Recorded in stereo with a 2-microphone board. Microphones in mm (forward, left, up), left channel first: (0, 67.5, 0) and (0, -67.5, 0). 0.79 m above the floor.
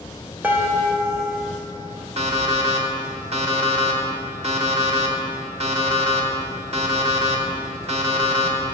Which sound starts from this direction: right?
An alarm clock, at 2.2 s.